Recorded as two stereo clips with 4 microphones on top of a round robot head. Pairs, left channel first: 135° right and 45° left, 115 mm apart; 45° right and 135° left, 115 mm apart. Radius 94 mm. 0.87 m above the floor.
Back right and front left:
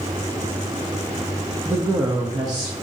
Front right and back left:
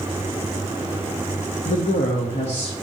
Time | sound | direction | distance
1.6 | a woman speaking | 30° right | 0.8 m